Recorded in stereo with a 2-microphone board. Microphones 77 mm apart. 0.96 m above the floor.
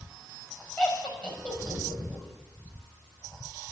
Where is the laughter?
15° left (ahead or behind), 5.5 m.